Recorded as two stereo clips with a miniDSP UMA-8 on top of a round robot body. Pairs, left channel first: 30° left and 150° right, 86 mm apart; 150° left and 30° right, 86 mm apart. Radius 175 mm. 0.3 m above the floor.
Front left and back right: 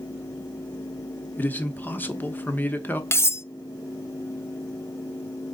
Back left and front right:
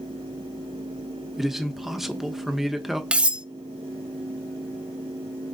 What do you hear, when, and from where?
1.4 s a man speaking: 50° left, 1.4 m
3.1 s cutlery clinking: 35° left, 0.6 m